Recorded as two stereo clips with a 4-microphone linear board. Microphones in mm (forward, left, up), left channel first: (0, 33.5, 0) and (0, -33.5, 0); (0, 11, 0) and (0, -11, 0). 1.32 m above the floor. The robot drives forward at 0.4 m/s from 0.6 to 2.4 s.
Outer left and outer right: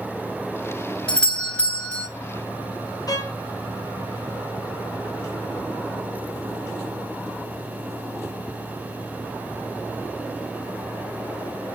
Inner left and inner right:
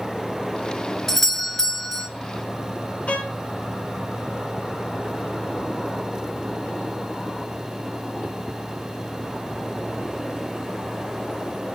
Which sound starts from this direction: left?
A violin, at 3.1 s.